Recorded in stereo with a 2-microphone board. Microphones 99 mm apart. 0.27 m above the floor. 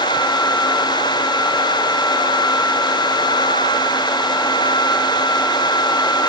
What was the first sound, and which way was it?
Only background noise.